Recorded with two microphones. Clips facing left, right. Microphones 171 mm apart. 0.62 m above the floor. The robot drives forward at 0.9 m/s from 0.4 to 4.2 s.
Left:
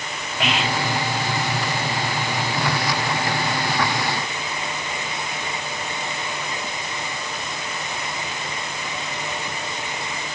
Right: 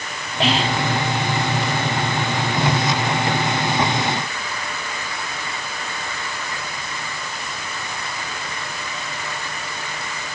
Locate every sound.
0.4 s whispering: 30° right (ahead or behind), 1.1 m; by 0.8 s 35° right (ahead or behind), 0.9 m